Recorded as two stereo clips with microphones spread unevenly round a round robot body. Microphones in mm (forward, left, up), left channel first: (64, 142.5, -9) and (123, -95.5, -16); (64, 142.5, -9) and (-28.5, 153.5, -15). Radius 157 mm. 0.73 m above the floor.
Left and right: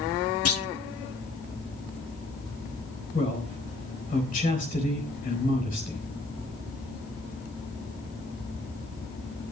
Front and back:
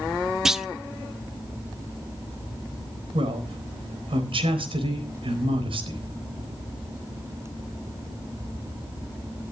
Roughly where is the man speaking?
Behind.